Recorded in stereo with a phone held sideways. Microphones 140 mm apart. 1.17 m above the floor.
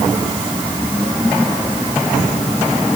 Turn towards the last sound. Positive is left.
No sound to turn to.